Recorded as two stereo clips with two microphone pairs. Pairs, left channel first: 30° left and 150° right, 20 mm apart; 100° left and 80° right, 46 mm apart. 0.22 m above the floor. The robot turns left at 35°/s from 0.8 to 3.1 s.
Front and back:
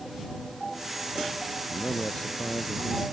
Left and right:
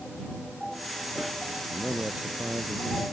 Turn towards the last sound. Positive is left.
turn(degrees=-40)